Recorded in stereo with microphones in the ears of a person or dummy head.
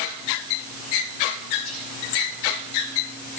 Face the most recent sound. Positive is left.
turn(degrees=45)  # may be behind; listen again after turning